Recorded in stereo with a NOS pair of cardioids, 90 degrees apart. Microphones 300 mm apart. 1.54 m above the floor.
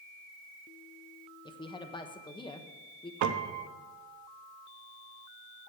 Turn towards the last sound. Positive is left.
turn(degrees=-65)